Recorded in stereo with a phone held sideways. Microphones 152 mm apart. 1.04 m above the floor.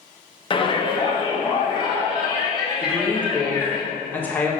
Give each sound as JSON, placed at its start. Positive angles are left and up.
{"t": 0.5, "sound": "a shout", "side_deg": 35, "distance_m": 1.0}
{"t": 2.8, "sound": "a woman speaking", "side_deg": 10, "distance_m": 1.4}